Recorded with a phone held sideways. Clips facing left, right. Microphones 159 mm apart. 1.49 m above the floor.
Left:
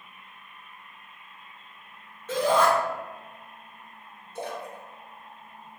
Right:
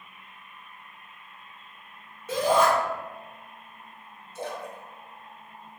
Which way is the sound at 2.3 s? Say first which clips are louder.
Even; 10° right (ahead or behind).